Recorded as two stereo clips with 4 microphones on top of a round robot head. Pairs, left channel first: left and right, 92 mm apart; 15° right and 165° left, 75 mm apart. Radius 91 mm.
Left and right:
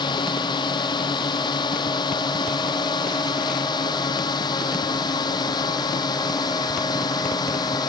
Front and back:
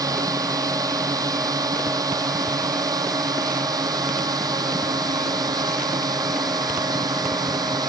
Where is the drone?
130° left; by 7.9 s 135° left.